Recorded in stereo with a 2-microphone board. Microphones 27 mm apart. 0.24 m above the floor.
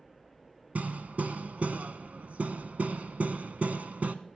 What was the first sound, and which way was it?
Hammering, 65° right (ahead or behind).